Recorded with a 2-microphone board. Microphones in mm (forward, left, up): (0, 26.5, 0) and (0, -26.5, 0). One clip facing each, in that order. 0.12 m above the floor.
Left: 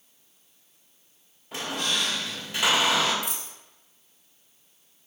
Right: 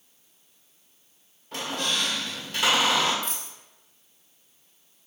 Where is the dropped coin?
5° left (ahead or behind), 1.0 m.